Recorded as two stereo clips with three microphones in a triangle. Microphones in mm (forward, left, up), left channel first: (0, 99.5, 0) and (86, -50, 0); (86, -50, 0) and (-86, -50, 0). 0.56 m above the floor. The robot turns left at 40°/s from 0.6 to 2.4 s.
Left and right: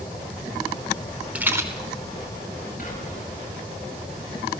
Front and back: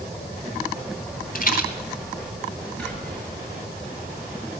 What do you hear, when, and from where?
1.4 s a rattle: 20° left, 2 m; by 1.7 s 5° left, 2 m
2.8 s whispering: 85° left, 8 m